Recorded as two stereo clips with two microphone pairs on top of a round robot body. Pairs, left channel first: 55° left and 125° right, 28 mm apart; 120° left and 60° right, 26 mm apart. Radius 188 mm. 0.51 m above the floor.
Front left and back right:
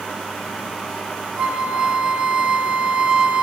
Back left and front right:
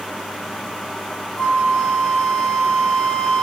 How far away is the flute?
About 0.6 m.